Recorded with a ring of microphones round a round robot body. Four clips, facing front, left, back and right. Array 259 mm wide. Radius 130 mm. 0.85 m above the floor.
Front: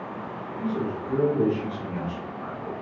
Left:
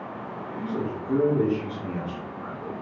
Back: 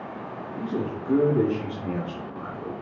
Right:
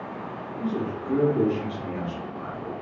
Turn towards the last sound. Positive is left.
turn(degrees=-165)